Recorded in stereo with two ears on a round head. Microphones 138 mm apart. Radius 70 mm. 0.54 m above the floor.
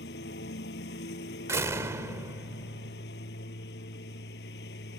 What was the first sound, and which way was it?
A lawn mower, 75° left (ahead or behind).